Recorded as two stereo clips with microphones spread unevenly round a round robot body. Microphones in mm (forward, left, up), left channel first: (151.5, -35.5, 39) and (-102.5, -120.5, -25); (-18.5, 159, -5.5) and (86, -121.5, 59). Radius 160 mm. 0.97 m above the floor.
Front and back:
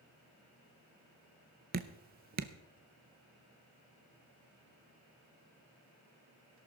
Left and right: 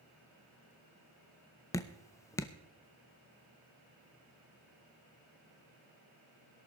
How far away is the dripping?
About 0.5 m.